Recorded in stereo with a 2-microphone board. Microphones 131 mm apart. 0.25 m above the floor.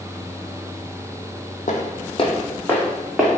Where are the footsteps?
75° left (ahead or behind), 0.8 m; by 3.3 s centre (ahead or behind), 1.3 m.